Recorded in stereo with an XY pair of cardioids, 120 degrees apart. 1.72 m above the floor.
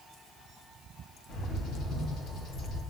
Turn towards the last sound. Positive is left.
turn(degrees=60)